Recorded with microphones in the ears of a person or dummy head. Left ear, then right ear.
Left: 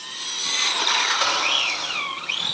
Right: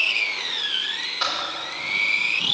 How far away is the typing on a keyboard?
About 3.5 m.